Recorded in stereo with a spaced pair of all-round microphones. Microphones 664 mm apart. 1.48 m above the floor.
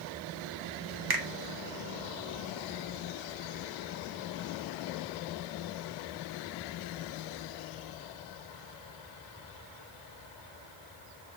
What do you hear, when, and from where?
1.1 s a finger snap: 40° right (ahead or behind), 0.5 m